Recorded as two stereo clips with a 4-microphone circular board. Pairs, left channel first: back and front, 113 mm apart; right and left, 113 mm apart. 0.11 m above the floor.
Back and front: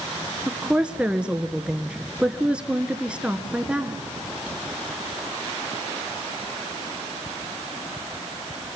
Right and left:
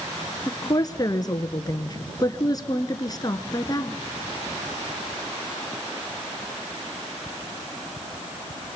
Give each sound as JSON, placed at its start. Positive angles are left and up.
{"t": 0.5, "sound": "a woman speaking", "azimuth_deg": -75, "distance_m": 1.2}